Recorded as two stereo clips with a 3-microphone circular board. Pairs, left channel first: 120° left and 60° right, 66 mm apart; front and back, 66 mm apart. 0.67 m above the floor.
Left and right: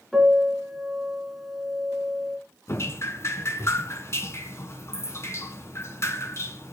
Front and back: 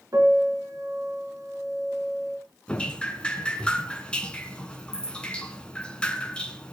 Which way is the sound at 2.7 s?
75° left.